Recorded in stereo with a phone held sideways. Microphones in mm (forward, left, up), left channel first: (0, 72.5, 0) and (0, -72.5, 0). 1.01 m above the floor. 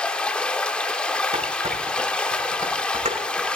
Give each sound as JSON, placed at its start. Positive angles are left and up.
{"t": 0.0, "sound": "running water", "side_deg": 5, "distance_m": 1.0}
{"t": 1.3, "sound": "dishes clattering", "side_deg": -50, "distance_m": 3.0}